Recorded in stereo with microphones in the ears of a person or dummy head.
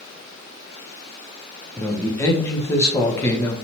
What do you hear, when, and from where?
1.8 s a man speaking: 10° left (ahead or behind), 0.5 m